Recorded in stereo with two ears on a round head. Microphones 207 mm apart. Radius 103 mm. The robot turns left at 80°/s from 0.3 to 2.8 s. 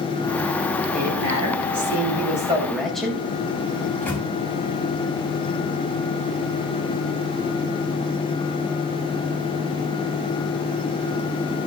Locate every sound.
0.9 s a woman speaking: 35° right, 5.5 m; by 3.2 s straight behind, 5.5 m
3.8 s a microwave: 10° left (ahead or behind), 4.5 m